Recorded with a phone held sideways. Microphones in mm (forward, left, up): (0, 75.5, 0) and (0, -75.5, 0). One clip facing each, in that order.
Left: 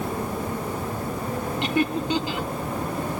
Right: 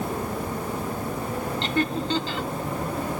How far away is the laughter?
About 1.7 m.